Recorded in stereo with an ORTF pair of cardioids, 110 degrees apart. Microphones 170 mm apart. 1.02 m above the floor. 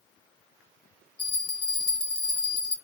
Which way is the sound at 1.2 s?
35° left.